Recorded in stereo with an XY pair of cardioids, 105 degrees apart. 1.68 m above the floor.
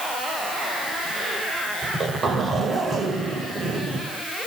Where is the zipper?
50° right, 9.5 m.